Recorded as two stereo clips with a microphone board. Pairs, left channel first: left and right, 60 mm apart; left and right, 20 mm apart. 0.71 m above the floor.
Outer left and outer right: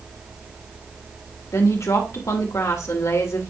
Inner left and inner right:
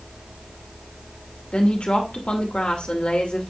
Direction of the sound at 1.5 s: 65° left (ahead or behind).